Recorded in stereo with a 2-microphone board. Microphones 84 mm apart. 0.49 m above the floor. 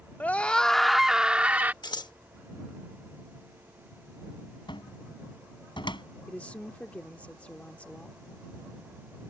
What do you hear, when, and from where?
0.2 s a scream: 20° left (ahead or behind); by 1.7 s 20° right (ahead or behind)
1.8 s scissors: 55° left (ahead or behind)
4.7 s a cupboard door: 65° left (ahead or behind)
6.3 s a woman speaking: 15° left (ahead or behind)